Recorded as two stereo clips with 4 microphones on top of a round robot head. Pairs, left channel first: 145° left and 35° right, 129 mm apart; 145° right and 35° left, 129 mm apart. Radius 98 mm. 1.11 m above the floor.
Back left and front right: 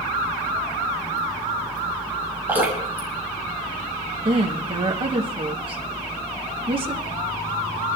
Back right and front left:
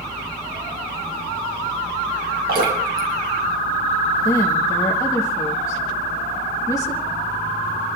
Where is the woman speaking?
85° right, 1.7 m.